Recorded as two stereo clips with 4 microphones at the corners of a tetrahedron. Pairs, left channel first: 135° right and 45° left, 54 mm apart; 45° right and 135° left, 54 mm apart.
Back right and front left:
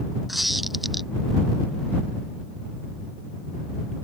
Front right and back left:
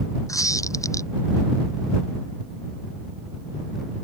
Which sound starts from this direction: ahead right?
A squeak, at 0.3 s.